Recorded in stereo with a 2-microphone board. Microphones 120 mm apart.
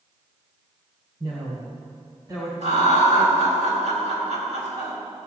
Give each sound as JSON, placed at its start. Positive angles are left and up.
{"t": 1.2, "sound": "a woman speaking", "side_deg": -50, "distance_m": 2.5}
{"t": 2.6, "sound": "laughter", "side_deg": -70, "distance_m": 4.0}